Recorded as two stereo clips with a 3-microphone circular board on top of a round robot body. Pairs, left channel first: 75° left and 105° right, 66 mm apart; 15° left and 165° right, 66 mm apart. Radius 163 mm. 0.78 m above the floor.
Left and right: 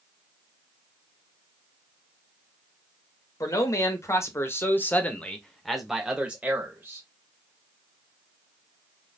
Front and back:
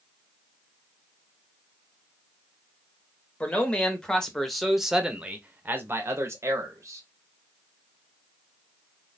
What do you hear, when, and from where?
3.4 s a man speaking: 80° left, 1.5 m; by 7.0 s 150° right, 1.4 m